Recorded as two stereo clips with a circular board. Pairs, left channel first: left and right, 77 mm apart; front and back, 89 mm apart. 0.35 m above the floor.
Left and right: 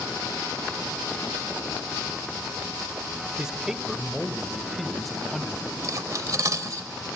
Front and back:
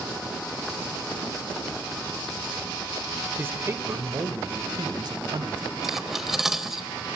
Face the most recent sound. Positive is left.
turn(degrees=-95)